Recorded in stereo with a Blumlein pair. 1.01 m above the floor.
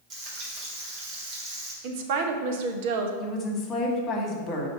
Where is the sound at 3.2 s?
25° left, 1.5 m.